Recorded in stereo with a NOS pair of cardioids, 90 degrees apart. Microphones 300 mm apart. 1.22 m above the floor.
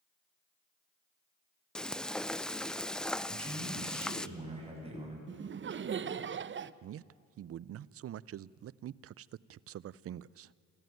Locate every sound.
1.8 s frying: 5° left, 0.5 m
3.3 s a man speaking: 20° right, 8.5 m
5.3 s laughter: 40° right, 0.9 m
6.8 s a man speaking: 50° right, 0.5 m